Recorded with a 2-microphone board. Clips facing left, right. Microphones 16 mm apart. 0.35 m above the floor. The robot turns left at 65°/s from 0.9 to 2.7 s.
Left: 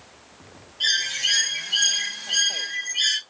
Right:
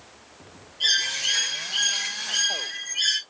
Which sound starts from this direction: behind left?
A bird, at 0.8 s.